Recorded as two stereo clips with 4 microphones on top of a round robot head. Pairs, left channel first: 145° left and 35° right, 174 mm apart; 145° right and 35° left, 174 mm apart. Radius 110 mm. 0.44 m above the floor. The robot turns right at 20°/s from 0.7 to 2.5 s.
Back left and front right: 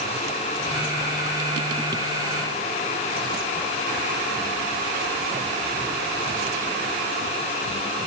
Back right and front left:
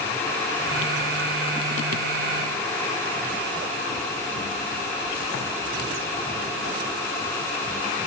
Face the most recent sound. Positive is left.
No sound to turn to.